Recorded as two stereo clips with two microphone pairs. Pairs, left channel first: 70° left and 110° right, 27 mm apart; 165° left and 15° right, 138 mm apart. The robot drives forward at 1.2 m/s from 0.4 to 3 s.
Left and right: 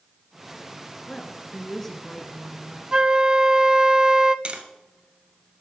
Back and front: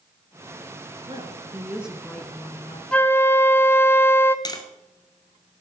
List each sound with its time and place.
1.1 s a woman speaking: 10° left, 1.7 m; by 2.8 s 170° left, 1.6 m
2.9 s a flute: 115° right, 0.5 m; by 4.3 s 135° right, 0.6 m
4.5 s tapping: 145° right, 1.3 m